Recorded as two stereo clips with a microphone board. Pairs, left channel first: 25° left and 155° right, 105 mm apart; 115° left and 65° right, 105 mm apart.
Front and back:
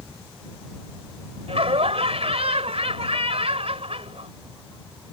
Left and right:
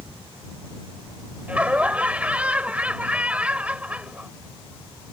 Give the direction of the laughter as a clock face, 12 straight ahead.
5 o'clock.